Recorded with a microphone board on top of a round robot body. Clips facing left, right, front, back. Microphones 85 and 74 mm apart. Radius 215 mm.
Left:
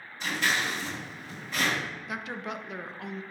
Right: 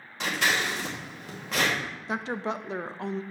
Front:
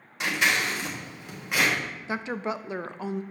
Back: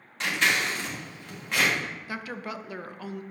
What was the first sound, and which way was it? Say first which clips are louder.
Scissors: right 2 dB, front 1 dB; 80° right.